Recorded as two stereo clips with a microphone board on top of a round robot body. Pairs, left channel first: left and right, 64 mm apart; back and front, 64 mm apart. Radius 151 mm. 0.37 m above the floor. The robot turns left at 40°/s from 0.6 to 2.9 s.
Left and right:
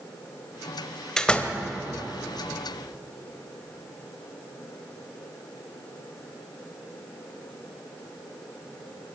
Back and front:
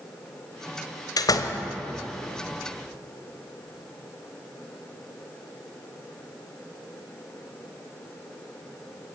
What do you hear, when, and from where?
1.2 s a door slam: 170° left, 1.7 m; by 1.6 s 150° left, 1.7 m